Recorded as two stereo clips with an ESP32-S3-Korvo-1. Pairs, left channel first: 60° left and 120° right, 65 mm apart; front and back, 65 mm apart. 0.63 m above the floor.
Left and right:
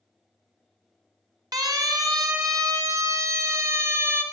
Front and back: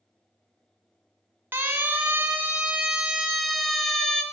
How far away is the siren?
About 2.5 m.